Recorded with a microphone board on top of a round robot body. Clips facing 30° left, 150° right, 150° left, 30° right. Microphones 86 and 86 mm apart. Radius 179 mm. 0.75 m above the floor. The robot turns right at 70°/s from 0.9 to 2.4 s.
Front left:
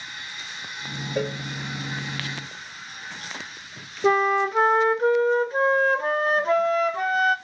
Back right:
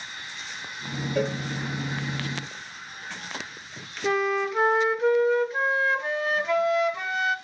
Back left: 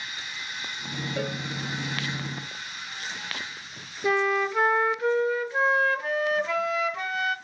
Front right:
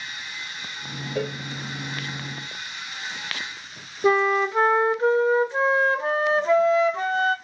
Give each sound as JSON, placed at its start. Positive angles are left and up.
{"t": 1.1, "sound": "a cowbell", "azimuth_deg": -55, "distance_m": 1.3}
{"t": 4.0, "sound": "a flute", "azimuth_deg": 10, "distance_m": 0.7}